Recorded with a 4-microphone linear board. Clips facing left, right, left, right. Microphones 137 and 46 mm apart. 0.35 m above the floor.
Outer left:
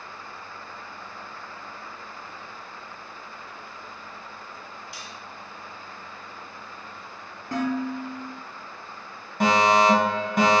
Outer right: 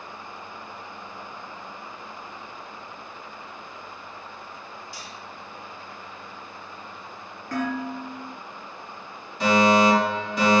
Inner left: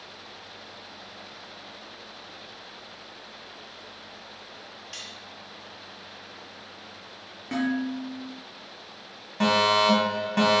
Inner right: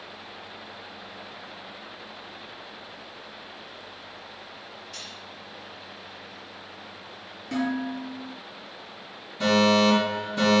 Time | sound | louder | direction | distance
4.9 | cutlery clinking | outer right 1 dB, inner left 2 dB | 65° left (ahead or behind) | 3 m
7.5 | dishes clattering | outer left 2 dB, inner left 1 dB | 25° left (ahead or behind) | 4.5 m
9.4 | a fire alarm | outer right 1 dB, inner right 1 dB | 55° left (ahead or behind) | 3.5 m